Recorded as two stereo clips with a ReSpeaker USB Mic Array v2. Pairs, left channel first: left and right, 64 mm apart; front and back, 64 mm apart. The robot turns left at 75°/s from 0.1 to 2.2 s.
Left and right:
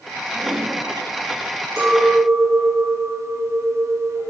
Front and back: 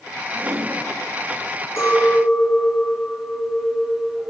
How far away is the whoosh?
About 1.1 m.